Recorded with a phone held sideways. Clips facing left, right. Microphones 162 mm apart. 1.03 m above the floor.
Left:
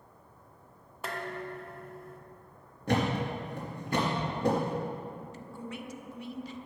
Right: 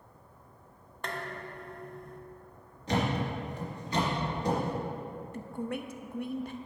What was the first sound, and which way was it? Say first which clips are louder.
Dishes clattering: left 2 dB; 5° left (ahead or behind).